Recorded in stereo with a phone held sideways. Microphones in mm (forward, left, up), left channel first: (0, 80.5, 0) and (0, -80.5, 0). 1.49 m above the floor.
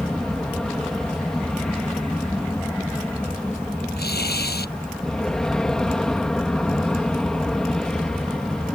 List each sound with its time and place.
0.0 s an aircraft: 5° left (ahead or behind)
4.0 s tearing paper: 85° left